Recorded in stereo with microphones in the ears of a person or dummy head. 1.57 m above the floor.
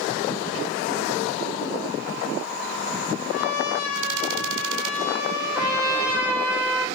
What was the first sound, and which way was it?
A trumpet, 75° left (ahead or behind).